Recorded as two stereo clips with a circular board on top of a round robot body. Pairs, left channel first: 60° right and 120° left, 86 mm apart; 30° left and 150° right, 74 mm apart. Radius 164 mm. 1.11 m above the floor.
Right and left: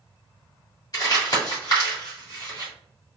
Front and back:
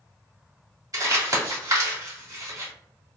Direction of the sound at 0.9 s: 110° right.